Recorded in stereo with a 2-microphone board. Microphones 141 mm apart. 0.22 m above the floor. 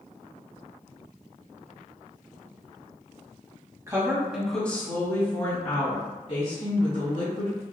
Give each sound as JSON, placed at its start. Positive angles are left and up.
{"t": 3.9, "sound": "a woman speaking", "side_deg": -25, "distance_m": 1.3}